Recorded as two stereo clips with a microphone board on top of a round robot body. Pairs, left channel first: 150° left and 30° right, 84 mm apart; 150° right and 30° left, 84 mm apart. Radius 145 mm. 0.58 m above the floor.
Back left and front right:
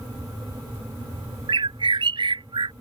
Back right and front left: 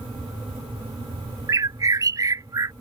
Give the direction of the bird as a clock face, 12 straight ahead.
1 o'clock.